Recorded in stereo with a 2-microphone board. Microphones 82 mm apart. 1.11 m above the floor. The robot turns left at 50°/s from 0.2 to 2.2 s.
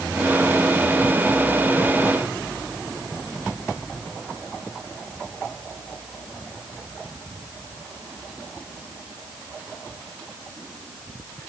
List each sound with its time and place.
Only background noise.